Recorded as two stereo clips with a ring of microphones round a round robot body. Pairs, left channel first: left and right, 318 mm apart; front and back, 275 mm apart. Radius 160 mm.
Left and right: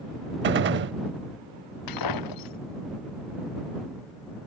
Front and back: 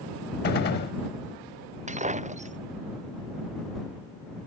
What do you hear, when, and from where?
0.4 s a gunshot: 45° right
1.9 s breaking glass: 115° left